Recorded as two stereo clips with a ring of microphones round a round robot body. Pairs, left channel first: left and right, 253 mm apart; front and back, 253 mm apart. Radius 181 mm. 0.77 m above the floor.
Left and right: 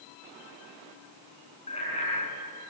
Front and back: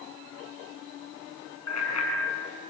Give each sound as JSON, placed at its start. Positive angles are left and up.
{"t": 1.7, "sound": "a bicycle bell", "azimuth_deg": 15, "distance_m": 6.0}